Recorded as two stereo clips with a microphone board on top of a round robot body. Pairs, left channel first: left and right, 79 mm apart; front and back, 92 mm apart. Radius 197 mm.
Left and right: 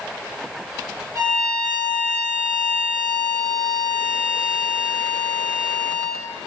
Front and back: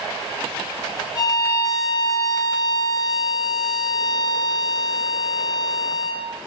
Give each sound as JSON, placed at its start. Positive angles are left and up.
{"t": 1.1, "sound": "a violin", "azimuth_deg": -45, "distance_m": 5.0}